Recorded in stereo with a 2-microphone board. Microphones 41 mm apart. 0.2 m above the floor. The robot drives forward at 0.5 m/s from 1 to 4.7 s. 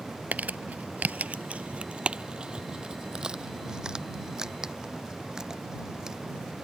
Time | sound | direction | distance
0.3 | crumpling | 40° right (ahead or behind) | ?